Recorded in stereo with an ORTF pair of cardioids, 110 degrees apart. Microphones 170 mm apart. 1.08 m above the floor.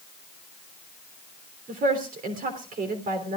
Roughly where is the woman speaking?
Ahead right.